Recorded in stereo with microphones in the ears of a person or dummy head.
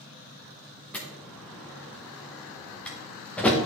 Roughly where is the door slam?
Centre.